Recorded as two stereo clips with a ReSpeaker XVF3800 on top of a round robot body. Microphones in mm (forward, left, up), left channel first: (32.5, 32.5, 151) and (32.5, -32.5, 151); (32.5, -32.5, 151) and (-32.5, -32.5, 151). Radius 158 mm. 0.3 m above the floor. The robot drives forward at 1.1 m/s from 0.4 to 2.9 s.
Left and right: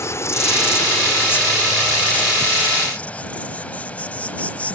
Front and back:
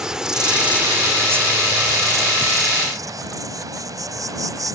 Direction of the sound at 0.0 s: 105° left.